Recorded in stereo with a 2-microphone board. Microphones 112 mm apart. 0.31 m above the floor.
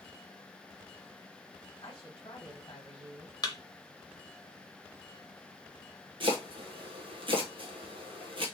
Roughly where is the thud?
Left.